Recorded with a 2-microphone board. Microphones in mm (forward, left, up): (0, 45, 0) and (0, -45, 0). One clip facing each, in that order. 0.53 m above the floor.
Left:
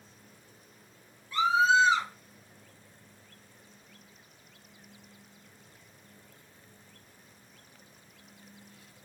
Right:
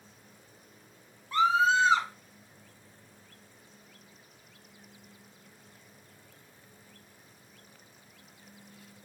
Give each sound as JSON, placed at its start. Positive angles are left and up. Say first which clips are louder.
{"t": 1.3, "sound": "a scream", "louder": "even", "side_deg": -50, "distance_m": 2.0}